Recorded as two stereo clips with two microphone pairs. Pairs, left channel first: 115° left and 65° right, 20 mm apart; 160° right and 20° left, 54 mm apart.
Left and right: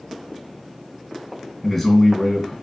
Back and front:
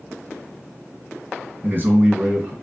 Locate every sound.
1.6 s a man speaking: 35° left, 1.7 m